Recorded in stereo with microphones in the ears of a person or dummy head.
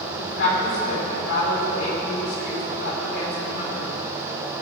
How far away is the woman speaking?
About 4 m.